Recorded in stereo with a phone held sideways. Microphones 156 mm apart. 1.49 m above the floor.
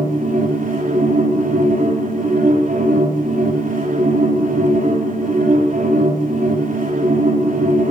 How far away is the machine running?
About 2.5 m.